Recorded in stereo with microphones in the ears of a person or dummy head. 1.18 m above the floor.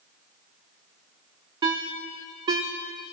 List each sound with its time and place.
1.6 s a ringtone: 25° right (ahead or behind), 0.5 m